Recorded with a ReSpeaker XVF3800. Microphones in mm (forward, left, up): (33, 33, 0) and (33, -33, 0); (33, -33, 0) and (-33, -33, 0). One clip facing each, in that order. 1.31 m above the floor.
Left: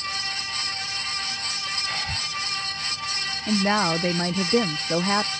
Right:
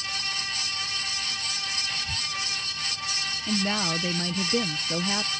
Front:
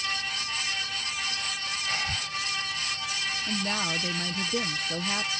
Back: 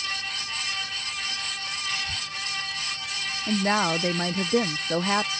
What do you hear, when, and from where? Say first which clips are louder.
1.9 s breathing: left 4 dB, front 2 dB; 55° left
3.5 s a woman speaking: left 6 dB, back 9 dB; 135° left